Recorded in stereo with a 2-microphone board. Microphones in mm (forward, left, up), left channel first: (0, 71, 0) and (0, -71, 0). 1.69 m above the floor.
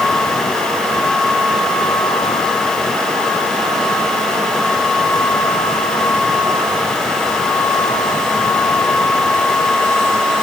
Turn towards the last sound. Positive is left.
No sound to turn to.